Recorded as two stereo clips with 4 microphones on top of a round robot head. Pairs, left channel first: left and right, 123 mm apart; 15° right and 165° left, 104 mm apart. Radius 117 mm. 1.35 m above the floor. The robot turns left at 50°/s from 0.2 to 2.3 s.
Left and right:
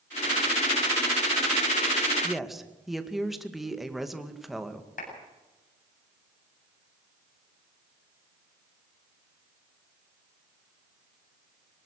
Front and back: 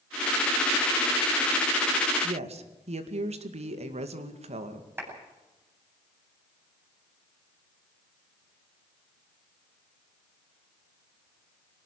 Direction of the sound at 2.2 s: 175° right.